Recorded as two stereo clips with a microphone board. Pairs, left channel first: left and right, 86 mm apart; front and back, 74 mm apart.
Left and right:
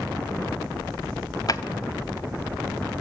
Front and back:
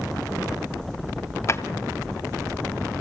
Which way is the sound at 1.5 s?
50° left.